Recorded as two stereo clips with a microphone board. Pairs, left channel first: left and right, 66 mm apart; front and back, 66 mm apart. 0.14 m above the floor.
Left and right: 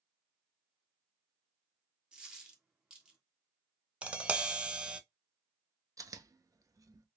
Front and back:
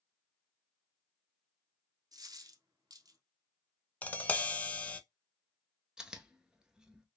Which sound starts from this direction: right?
Chewing, at 6.0 s.